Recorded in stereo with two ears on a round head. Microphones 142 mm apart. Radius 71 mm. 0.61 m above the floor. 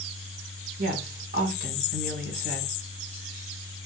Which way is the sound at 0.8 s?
65° right (ahead or behind).